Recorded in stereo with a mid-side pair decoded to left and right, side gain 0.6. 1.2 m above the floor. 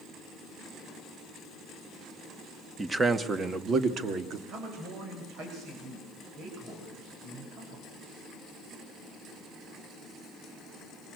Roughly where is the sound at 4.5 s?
Ahead right.